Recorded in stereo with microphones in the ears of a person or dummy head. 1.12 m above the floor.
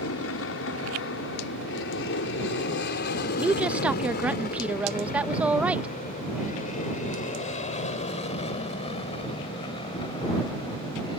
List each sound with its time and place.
0.0 s an aircraft: 65° left (ahead or behind); by 11.2 s 25° left (ahead or behind)
3.4 s a woman speaking: 10° right (ahead or behind)